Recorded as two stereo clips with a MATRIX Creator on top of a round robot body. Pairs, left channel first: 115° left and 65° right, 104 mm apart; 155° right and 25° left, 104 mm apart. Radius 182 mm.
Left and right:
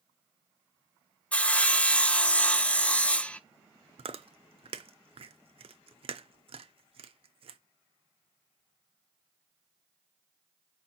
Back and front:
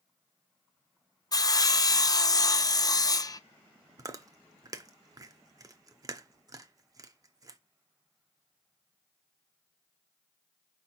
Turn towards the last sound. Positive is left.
turn(degrees=-35)